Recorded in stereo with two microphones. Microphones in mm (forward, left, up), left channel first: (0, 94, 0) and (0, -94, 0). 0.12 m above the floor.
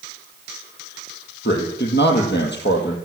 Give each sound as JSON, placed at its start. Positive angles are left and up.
{"t": 1.4, "sound": "a man speaking", "side_deg": 70, "distance_m": 4.5}